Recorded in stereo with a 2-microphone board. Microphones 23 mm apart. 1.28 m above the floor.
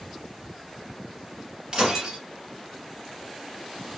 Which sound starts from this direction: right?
Breaking glass, at 1.7 s.